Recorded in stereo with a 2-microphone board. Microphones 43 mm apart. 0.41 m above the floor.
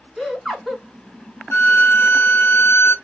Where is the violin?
50° left (ahead or behind), 0.5 m.